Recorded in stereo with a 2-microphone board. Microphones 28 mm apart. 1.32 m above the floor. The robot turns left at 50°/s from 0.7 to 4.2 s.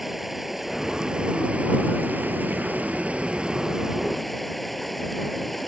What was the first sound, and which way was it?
Running water, 5° right.